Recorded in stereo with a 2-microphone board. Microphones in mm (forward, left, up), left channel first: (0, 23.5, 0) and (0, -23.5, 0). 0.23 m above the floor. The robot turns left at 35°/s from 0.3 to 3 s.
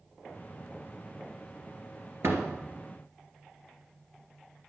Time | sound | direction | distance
2.2 | a door slam | 75° right (ahead or behind) | 2.5 m